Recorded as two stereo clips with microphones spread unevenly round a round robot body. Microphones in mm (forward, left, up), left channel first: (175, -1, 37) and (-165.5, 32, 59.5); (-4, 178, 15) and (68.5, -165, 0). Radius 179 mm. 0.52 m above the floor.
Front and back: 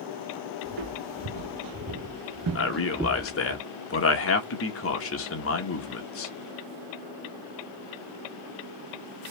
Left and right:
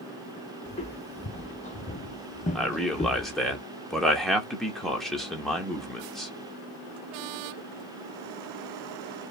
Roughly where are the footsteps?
Behind.